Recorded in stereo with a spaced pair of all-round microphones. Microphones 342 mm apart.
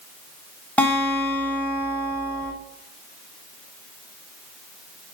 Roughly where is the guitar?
Centre.